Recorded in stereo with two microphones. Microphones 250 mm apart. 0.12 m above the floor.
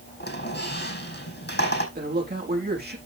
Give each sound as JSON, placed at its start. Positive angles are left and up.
{"t": 0.2, "sound": "a squeak", "side_deg": 45, "distance_m": 4.5}
{"t": 1.9, "sound": "a man speaking", "side_deg": -40, "distance_m": 6.0}